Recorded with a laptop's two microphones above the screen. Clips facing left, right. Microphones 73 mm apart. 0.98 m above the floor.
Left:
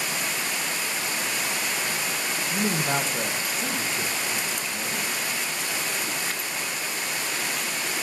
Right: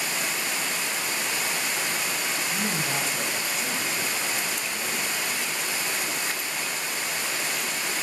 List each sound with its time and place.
2.5 s a man speaking: 45° left (ahead or behind), 0.7 m; by 5.0 s 20° left (ahead or behind), 1.8 m